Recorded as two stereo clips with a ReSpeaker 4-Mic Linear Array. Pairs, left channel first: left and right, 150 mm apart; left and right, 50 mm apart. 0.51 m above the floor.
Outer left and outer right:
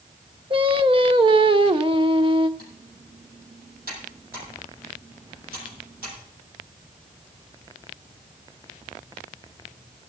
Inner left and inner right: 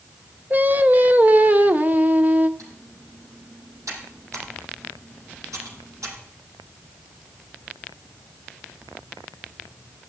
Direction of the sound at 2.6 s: 80° right.